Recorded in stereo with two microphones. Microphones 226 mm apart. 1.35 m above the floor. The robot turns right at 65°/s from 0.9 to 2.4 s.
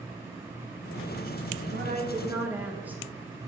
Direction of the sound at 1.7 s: 55° right.